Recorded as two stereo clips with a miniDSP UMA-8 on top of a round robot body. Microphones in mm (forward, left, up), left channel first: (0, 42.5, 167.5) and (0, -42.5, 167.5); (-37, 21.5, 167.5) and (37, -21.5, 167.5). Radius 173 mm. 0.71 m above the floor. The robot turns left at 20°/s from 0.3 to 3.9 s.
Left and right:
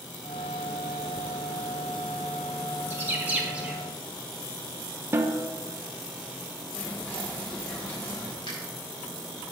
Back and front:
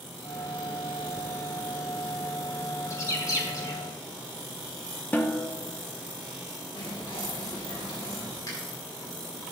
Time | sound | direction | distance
2.9 | a bird | 155° right | 1.7 m
5.1 | a snare drum | 145° right | 1.1 m
6.8 | whispering | 160° left | 1.7 m
8.5 | a finger snap | 105° left | 5 m